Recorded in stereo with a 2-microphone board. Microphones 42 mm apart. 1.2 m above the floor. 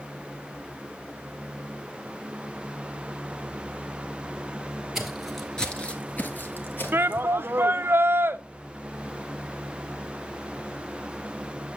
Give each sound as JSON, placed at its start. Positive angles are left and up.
{"t": 5.0, "sound": "footsteps", "side_deg": -5, "distance_m": 1.6}
{"t": 6.9, "sound": "a shout", "side_deg": -55, "distance_m": 0.6}